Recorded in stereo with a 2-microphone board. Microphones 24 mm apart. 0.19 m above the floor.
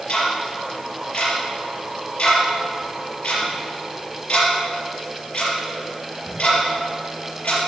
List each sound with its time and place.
0.1 s ticking: 65° left (ahead or behind), 5.5 m